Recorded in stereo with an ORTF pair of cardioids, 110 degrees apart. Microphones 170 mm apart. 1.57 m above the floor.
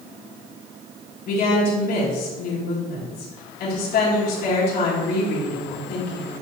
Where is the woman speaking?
70° left, 3.5 m.